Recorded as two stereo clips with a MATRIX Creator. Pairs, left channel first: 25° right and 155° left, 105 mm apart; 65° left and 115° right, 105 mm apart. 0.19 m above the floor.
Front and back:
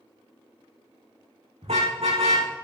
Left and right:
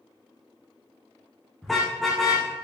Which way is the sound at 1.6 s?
155° left.